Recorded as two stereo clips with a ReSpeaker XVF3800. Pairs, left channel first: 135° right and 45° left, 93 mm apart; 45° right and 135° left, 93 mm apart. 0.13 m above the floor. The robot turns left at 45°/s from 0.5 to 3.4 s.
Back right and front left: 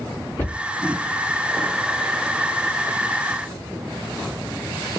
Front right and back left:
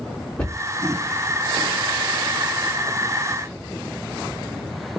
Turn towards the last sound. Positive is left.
turn(degrees=120)